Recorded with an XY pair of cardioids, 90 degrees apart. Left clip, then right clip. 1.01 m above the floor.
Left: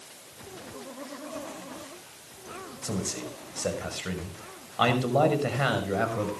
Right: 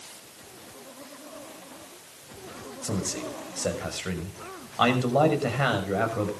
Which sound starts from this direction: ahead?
A man speaking, at 2.8 s.